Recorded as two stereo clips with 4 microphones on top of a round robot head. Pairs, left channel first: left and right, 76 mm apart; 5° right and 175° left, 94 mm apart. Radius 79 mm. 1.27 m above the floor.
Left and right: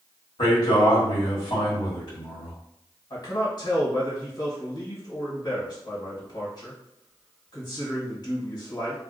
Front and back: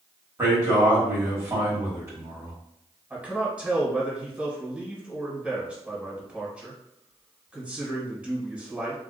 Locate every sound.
0.4 s a man speaking: 115° left, 1.4 m
3.1 s a man speaking: 100° left, 1.3 m